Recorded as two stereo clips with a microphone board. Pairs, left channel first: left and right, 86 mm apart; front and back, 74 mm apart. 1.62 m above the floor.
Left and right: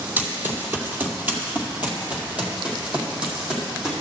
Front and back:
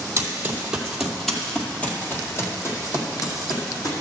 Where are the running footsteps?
145° right, 1.9 m; by 3.9 s 10° right, 3 m.